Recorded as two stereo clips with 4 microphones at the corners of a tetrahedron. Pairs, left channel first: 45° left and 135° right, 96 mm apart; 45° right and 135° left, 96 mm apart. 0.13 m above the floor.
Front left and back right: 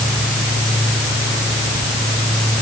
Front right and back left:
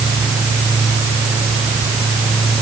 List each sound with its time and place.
Only background noise.